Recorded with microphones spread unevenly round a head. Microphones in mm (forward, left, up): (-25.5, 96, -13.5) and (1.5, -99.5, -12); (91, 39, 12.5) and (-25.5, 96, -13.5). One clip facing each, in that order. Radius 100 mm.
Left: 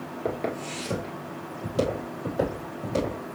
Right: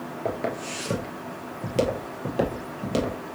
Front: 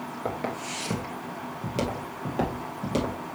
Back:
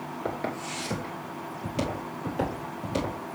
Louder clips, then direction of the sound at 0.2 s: Even, front 1 dB; 5° right.